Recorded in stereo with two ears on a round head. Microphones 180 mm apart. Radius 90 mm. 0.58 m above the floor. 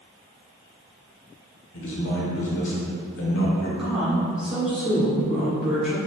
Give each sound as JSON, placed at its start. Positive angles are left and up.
{"t": 1.7, "sound": "a man speaking", "side_deg": 65, "distance_m": 1.7}
{"t": 3.8, "sound": "a woman speaking", "side_deg": 0, "distance_m": 2.0}